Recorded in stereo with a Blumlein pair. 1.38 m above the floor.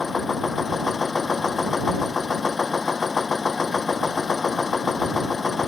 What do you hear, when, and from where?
0.0 s a machine running: 15° left